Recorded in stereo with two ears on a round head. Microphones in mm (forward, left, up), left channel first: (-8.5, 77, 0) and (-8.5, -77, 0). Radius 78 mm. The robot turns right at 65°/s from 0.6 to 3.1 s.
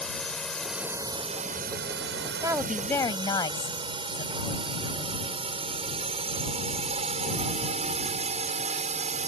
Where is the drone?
5° left (ahead or behind); by 9.3 s 40° right (ahead or behind).